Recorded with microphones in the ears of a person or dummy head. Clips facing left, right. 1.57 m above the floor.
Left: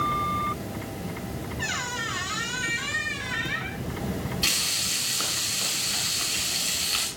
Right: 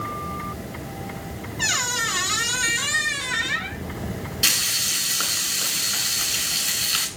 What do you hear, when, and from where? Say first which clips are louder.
1.6 s a squeak: right 2 dB; 60° right (ahead or behind), 1.8 m
4.4 s frying: right 1 dB; 5° right (ahead or behind), 7 m